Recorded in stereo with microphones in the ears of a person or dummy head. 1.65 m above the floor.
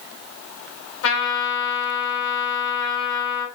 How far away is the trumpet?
About 1.5 m.